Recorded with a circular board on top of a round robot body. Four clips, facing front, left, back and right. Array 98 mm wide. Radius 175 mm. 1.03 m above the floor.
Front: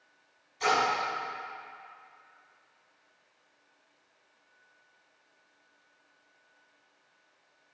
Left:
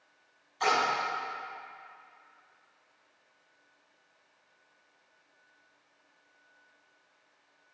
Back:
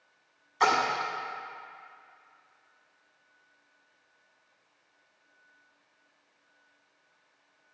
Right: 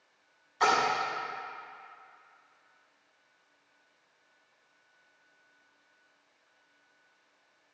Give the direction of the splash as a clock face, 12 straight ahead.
5 o'clock.